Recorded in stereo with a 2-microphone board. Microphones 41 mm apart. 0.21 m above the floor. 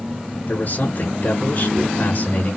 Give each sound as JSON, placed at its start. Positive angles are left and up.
{"t": 0.5, "sound": "a man speaking", "side_deg": 40, "distance_m": 2.5}